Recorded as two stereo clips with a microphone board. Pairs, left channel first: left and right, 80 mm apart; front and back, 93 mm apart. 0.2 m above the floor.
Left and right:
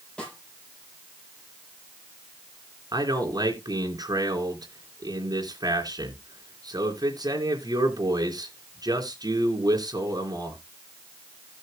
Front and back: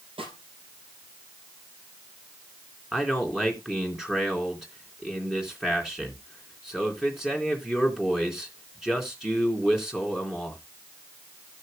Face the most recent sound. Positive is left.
turn(degrees=-95)